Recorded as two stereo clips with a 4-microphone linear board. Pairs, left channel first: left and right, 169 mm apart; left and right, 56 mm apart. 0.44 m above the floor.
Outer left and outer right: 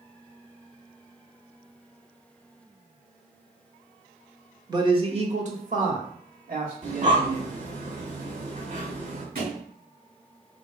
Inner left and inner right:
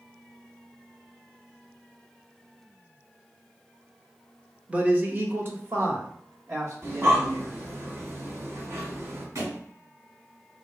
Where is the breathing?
50° right (ahead or behind), 1.0 m.